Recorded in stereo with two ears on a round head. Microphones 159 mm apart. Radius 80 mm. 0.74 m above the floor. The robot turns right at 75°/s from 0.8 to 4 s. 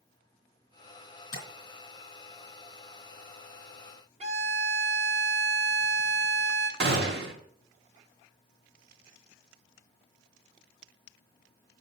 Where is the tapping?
70° left (ahead or behind), 3 m; by 1.5 s 55° left (ahead or behind), 3 m.